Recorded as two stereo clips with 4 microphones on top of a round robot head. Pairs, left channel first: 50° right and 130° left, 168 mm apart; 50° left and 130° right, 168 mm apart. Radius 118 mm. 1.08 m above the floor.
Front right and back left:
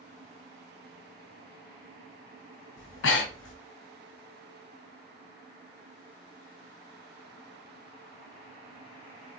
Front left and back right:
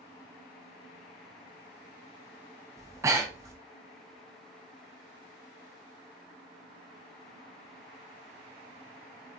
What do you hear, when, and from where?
2.8 s breathing: 55° right, 0.6 m